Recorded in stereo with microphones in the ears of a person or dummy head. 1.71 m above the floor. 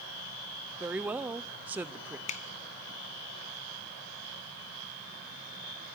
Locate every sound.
0.8 s a woman speaking: 10° right (ahead or behind), 0.6 m
2.3 s a finger snap: 35° left (ahead or behind), 0.5 m